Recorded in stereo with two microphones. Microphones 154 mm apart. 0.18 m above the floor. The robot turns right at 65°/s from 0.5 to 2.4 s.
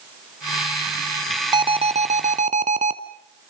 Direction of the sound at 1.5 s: 145° right.